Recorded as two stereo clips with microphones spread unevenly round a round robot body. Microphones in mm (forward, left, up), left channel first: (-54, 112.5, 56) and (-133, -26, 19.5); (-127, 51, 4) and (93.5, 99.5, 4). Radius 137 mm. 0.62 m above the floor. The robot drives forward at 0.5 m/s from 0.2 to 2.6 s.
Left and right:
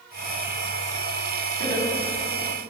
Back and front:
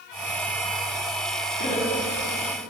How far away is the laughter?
About 3.5 m.